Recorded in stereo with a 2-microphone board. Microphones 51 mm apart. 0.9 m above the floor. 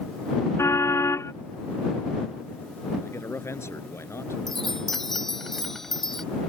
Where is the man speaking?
55° left (ahead or behind).